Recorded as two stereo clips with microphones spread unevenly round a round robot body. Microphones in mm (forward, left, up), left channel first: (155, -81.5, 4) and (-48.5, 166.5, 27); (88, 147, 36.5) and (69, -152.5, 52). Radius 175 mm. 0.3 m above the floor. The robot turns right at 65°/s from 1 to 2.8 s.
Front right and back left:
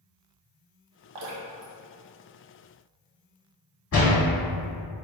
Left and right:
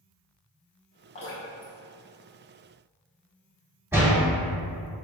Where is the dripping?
155° left, 0.7 m; by 3.1 s 95° right, 0.7 m.